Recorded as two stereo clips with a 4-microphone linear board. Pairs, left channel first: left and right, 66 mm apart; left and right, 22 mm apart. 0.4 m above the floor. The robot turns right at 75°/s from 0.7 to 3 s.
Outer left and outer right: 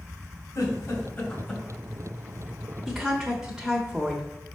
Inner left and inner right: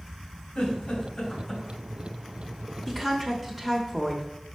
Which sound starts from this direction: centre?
A woman speaking, at 2.9 s.